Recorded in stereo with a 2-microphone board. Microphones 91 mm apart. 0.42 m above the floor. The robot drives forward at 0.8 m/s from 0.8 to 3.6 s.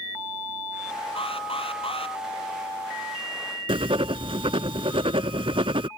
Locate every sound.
1.2 s an alarm: 70° left (ahead or behind); by 2.2 s 75° left (ahead or behind)
3.7 s writing: 75° right (ahead or behind)